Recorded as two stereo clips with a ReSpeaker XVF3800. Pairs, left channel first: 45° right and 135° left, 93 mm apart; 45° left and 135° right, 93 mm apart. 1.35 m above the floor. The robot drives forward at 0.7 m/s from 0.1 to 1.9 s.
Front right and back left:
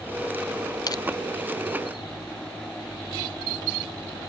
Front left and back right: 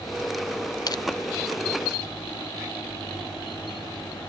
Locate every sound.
0.9 s crushing: straight ahead, 0.7 m